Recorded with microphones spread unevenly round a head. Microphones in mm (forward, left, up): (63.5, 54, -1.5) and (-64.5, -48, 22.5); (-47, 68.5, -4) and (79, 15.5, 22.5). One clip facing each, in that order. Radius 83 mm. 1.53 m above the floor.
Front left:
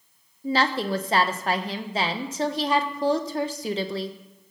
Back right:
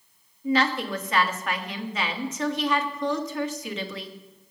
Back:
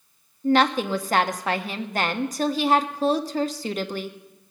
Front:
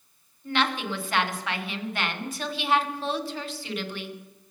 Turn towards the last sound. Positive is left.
turn(degrees=100)